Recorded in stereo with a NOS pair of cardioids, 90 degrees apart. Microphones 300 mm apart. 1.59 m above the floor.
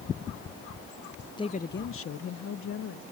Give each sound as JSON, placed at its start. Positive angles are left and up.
{"t": 1.4, "sound": "a woman speaking", "azimuth_deg": 15}